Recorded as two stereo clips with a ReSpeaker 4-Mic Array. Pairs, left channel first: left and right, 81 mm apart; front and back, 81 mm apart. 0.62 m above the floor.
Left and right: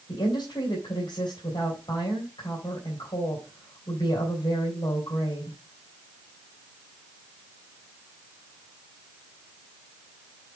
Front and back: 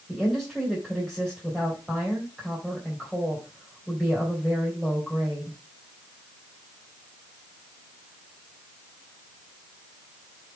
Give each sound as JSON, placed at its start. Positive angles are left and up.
{"t": 0.1, "sound": "a woman speaking", "azimuth_deg": 95, "distance_m": 3.0}